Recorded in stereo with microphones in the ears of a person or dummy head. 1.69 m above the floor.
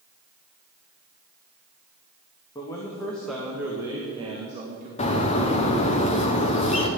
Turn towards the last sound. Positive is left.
turn(degrees=30)  # may be behind; listen again after turning